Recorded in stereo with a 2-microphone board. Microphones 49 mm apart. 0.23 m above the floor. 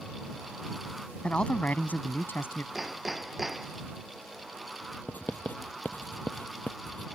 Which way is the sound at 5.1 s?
35° left (ahead or behind).